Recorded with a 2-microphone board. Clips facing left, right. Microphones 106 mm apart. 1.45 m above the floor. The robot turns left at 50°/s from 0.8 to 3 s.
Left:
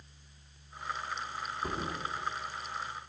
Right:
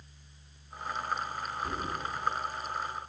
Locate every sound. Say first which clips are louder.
1.6 s a thud: even; 45° left (ahead or behind), 1.4 m; by 2.0 s 50° left (ahead or behind), 1.4 m